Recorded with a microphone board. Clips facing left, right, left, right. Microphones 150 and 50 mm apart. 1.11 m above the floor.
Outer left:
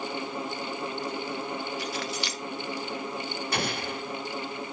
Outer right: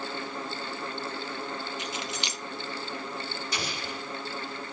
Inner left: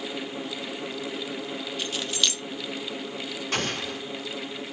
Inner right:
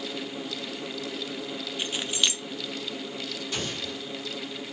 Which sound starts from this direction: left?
An explosion, at 3.5 s.